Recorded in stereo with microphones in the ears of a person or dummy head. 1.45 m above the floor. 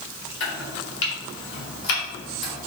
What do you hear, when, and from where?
0.4 s chopping: 75° left (ahead or behind), 1.8 m